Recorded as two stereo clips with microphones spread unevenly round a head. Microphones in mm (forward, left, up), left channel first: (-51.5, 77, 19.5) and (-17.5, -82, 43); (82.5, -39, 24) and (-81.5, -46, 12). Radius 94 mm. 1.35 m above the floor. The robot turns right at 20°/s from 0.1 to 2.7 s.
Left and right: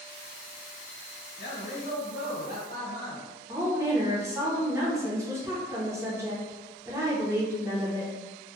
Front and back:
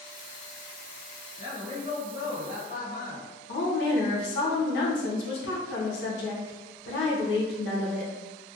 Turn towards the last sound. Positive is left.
turn(degrees=-5)